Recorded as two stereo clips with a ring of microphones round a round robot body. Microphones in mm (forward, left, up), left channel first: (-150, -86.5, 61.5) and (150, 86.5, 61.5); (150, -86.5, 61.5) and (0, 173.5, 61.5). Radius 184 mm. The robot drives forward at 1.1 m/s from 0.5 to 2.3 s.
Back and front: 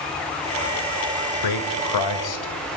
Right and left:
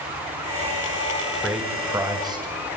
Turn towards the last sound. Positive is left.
turn(degrees=-160)